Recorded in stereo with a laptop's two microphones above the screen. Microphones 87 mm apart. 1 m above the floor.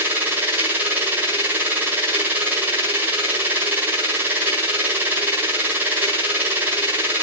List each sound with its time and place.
0.0 s a machine running: 25° right (ahead or behind), 3.5 m